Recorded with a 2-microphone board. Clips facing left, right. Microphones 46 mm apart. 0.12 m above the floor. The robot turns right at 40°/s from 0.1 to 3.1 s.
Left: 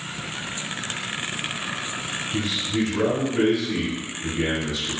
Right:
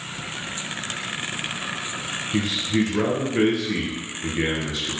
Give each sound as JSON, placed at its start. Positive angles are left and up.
{"t": 2.3, "sound": "a man speaking", "azimuth_deg": -80, "distance_m": 1.9}